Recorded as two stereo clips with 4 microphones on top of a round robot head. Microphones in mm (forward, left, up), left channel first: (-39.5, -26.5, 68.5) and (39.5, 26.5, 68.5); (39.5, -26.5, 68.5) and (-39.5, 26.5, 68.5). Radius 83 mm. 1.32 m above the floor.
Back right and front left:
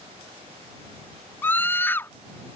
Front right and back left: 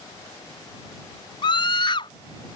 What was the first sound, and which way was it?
A scream, 75° right.